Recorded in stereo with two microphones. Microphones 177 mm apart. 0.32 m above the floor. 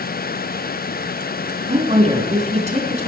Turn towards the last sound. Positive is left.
turn(degrees=-35)  # may be behind; listen again after turning